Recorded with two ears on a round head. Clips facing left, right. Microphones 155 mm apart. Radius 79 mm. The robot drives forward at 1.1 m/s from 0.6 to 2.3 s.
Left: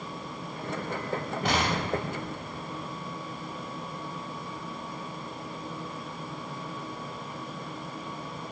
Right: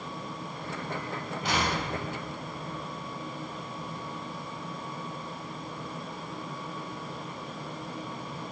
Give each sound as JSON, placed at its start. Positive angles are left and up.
{"t": 1.4, "sound": "an explosion", "side_deg": 50, "distance_m": 2.5}